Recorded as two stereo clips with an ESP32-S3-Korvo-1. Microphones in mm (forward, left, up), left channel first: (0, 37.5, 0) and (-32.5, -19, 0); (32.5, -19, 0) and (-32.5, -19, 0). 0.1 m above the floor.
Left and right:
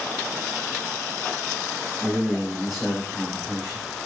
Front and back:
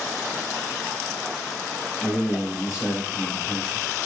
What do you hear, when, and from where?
2.0 s a man speaking: 160° left, 1.8 m; by 3.9 s 5° right, 1.8 m